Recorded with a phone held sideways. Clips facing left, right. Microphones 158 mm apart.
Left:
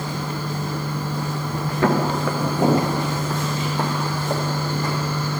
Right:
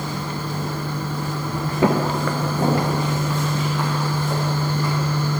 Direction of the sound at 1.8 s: 20° right (ahead or behind).